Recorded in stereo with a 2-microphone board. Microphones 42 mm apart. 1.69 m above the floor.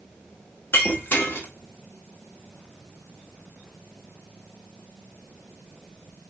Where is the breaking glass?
60° left (ahead or behind), 1.9 m.